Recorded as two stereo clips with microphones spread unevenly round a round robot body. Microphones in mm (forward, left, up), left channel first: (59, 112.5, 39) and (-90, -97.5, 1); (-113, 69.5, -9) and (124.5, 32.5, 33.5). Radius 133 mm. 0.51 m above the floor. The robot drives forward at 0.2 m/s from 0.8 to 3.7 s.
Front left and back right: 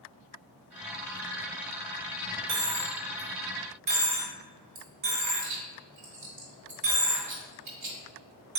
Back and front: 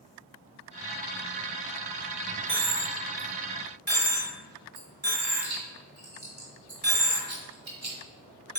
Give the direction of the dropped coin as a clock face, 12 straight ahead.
3 o'clock.